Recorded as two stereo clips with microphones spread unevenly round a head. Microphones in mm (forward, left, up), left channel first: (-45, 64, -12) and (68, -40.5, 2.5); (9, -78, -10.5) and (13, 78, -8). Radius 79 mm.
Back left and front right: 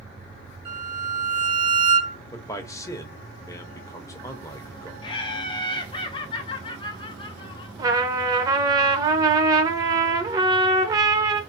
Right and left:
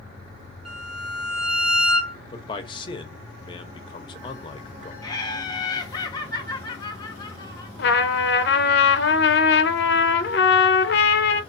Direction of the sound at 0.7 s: 5° left.